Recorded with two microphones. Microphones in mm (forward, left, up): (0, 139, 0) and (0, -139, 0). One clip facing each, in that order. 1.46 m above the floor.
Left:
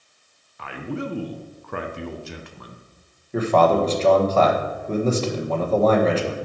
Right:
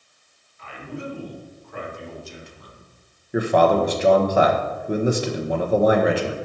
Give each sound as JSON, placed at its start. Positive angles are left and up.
{"t": 0.6, "sound": "a man speaking", "side_deg": 75, "distance_m": 0.7}
{"t": 3.3, "sound": "a man speaking", "side_deg": -15, "distance_m": 0.9}